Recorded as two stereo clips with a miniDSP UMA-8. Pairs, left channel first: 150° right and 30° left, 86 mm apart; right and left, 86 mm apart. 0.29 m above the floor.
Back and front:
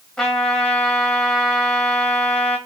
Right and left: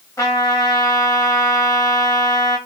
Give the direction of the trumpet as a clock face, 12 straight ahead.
2 o'clock.